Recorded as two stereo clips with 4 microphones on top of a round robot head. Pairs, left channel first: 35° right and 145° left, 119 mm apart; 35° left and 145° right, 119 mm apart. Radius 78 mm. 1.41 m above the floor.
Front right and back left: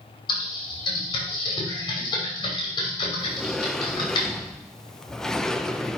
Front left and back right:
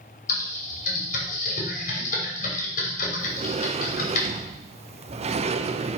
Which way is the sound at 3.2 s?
125° right.